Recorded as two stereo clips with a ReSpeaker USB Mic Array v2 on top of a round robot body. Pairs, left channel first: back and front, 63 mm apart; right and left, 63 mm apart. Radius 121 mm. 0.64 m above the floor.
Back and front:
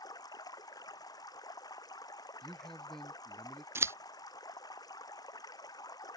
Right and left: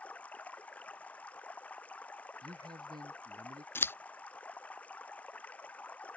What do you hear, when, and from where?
0.0 s running water: 160° right
2.4 s a man speaking: 95° left
3.8 s scissors: 45° right